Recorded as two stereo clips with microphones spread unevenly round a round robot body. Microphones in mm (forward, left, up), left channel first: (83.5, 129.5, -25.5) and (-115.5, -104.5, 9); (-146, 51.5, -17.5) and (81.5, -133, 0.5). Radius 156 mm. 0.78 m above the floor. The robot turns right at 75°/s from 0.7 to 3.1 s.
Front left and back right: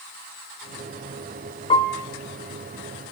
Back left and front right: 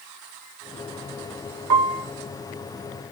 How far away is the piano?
About 1.3 m.